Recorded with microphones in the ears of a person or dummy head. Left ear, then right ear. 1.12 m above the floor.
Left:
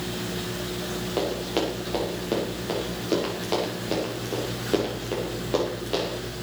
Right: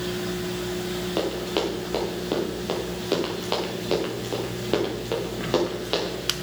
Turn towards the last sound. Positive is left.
turn(degrees=-35)  # may be behind; listen again after turning